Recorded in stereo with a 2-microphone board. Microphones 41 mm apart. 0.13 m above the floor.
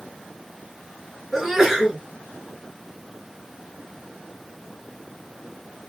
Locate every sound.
1.3 s a sneeze: 10° right (ahead or behind), 2 m